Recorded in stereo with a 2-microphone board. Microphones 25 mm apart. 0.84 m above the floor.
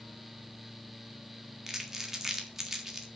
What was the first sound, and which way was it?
Crumpling, 15° right (ahead or behind).